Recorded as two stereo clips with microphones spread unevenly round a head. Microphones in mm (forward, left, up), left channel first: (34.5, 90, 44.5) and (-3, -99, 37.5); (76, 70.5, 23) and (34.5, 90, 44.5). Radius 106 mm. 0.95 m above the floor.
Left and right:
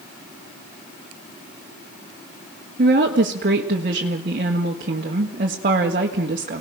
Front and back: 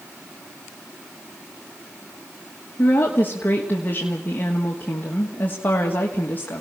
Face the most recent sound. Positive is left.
turn(degrees=-60)